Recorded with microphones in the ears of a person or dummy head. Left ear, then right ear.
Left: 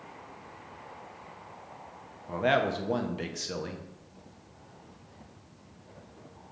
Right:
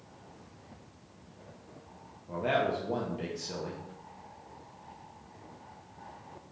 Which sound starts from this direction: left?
A man speaking, at 2.3 s.